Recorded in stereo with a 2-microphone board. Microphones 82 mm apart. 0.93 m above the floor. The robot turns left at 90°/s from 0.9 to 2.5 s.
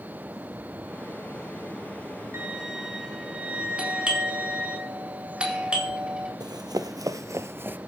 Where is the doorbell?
10° right (ahead or behind), 4 m.